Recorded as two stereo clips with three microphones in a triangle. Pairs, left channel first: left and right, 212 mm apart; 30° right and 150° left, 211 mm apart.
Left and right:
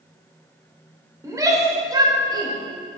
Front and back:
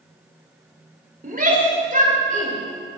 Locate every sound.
1.2 s a shout: 165° right, 2.5 m; by 2.5 s 160° right, 3.5 m